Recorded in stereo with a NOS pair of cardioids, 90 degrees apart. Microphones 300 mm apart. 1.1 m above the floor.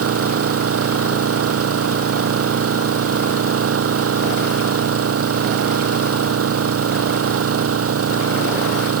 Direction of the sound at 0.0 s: 50° right.